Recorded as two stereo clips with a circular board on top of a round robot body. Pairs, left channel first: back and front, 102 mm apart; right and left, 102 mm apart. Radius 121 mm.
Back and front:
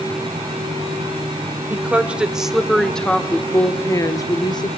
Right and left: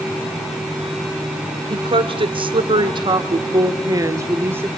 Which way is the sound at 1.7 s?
70° left.